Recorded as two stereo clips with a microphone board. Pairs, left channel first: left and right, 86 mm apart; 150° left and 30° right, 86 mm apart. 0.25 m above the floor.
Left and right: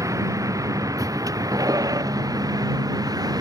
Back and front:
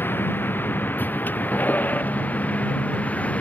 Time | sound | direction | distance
0.0 | a vehicle | 145° right | ?